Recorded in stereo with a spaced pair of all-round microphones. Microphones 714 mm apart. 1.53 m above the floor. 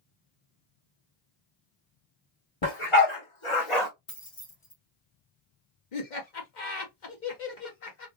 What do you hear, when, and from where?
2.6 s a dog barking: 35° left (ahead or behind), 1.7 m; by 3.9 s 40° left (ahead or behind), 1.3 m
4.1 s keys jangling: 70° left (ahead or behind), 1.6 m
5.9 s laughter: 75° left (ahead or behind), 1.4 m